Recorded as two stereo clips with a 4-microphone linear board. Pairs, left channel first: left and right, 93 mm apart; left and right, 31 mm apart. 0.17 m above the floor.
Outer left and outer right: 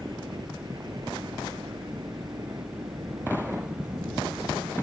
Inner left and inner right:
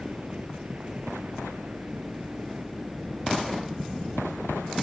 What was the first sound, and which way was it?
A helicopter, 50° right (ahead or behind).